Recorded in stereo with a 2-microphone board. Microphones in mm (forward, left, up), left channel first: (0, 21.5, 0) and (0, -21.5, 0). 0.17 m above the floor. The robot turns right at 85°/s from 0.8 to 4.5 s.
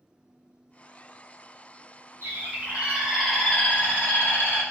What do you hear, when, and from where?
2.2 s a bird: 80° right, 1.7 m; by 4.6 s 115° left, 1.7 m